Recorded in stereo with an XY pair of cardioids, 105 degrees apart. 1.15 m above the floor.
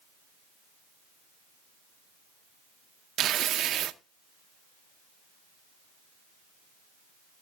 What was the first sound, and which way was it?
Tearing paper, 70° right.